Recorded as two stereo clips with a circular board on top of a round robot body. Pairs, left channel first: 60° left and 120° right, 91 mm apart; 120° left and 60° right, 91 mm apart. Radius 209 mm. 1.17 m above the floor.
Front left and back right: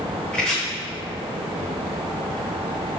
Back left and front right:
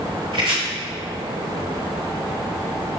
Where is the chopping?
25° right, 1.1 m.